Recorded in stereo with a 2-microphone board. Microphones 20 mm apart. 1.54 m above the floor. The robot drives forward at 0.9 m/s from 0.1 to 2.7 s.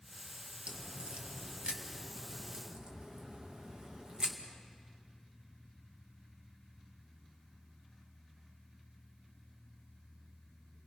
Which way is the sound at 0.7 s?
80° right.